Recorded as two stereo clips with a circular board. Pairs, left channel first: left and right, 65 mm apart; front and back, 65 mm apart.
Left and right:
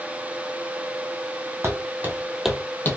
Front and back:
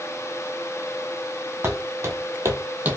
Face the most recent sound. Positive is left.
turn(degrees=120)